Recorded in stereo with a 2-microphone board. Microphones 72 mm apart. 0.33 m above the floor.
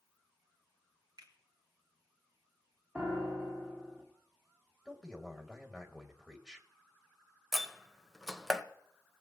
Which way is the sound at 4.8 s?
5° right (ahead or behind).